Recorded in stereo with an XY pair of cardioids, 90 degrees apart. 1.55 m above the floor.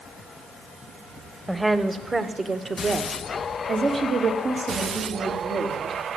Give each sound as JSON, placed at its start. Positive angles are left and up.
{"t": 1.5, "sound": "a woman speaking", "azimuth_deg": -5, "distance_m": 1.5}